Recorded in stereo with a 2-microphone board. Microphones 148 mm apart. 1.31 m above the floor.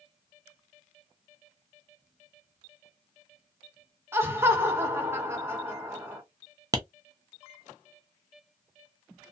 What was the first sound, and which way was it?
Laughter, 15° right (ahead or behind).